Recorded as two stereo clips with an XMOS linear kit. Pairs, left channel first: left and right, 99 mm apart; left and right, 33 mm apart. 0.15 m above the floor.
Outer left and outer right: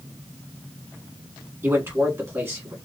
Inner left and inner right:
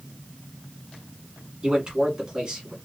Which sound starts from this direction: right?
A man speaking, at 1.6 s.